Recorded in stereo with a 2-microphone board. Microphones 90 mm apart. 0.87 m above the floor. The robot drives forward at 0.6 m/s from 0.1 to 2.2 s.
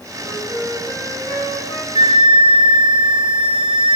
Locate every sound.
0.2 s a flute: 50° left (ahead or behind), 7 m; by 1.9 s 45° left (ahead or behind), 7.5 m
1.9 s a flute: 85° right, 3.5 m; by 4.0 s 80° right, 3.5 m